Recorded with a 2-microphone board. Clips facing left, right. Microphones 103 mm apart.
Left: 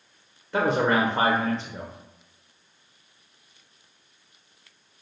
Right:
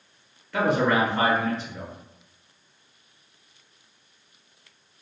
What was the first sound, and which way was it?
A man speaking, 25° left (ahead or behind).